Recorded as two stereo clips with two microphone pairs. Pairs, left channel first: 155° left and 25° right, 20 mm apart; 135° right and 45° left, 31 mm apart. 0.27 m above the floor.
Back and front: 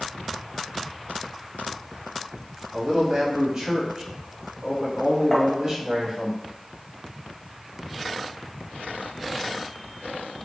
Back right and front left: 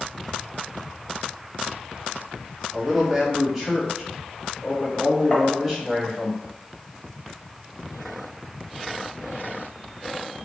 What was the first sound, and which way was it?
A man speaking, 30° right.